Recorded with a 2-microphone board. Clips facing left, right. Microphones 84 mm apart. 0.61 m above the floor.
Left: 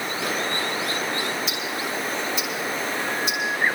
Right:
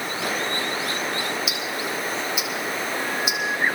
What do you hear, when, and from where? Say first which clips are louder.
1.5 s ticking: even; 5° right (ahead or behind), 3.5 m